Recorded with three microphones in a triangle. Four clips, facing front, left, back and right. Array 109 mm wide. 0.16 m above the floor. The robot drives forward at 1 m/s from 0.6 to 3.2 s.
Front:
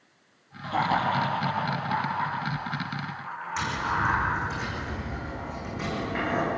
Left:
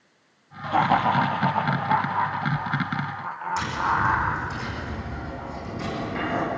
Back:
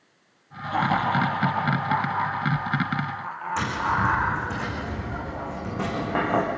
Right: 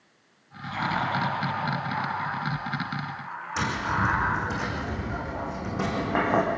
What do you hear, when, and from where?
0.6 s laughter: 85° left, 4.5 m; by 4.4 s 120° left, 5 m
3.6 s tapping: 125° right, 8 m